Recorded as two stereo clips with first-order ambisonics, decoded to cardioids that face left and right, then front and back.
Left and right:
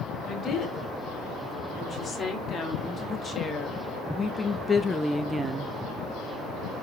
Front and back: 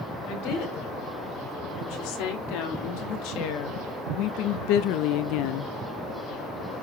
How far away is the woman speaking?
About 4.5 m.